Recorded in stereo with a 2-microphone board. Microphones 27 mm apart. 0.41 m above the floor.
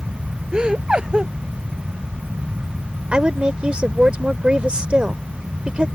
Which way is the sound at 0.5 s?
30° right (ahead or behind).